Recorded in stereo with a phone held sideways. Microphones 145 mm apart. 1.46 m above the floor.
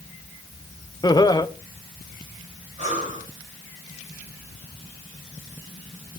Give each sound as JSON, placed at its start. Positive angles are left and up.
{"t": 1.0, "sound": "laughter", "side_deg": 30, "distance_m": 0.7}
{"t": 2.8, "sound": "breathing", "side_deg": -50, "distance_m": 4.5}